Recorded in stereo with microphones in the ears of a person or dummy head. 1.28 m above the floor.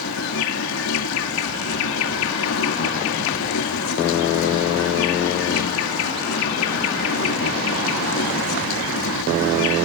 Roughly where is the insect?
Left.